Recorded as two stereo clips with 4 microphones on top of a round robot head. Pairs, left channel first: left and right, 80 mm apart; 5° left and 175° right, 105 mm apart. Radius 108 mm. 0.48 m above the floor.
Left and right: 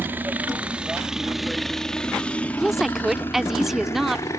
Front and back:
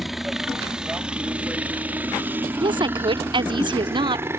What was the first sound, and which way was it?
A helicopter, 90° right.